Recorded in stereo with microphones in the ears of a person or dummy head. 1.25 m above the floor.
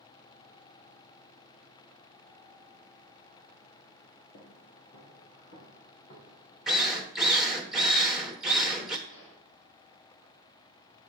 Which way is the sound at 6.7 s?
Centre (ahead or behind).